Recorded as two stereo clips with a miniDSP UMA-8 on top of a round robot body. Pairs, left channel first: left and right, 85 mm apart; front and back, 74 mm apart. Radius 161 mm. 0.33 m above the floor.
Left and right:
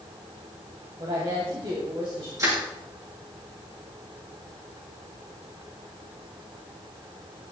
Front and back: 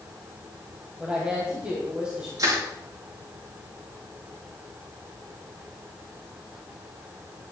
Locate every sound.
1.0 s a woman speaking: 105° right, 3.5 m
2.4 s crushing: 140° right, 7 m